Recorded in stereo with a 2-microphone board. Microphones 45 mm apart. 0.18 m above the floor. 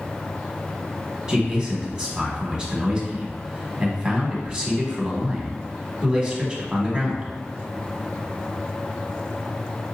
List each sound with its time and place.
1.3 s a man speaking: 15° right (ahead or behind), 1.1 m